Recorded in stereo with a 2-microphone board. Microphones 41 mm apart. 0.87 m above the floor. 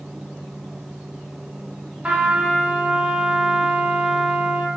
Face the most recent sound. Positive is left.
turn(degrees=-25)  # may be behind; listen again after turning